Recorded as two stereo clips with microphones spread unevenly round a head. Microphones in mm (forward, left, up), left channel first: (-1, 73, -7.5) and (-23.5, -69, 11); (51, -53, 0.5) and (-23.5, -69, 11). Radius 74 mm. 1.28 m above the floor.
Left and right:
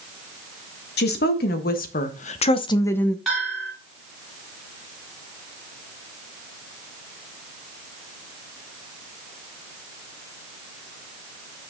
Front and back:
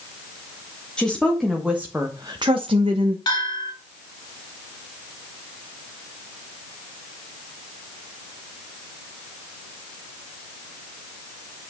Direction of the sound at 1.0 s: 95° left.